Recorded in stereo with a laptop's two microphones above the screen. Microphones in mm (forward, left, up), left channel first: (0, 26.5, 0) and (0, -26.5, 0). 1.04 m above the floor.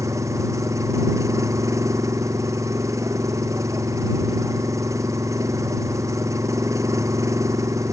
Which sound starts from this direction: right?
An engine running, at 0.0 s.